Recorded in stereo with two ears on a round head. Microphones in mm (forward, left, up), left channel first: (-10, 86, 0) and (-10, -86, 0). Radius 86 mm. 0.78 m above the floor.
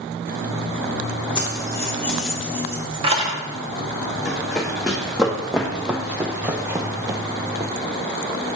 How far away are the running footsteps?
About 1.7 m.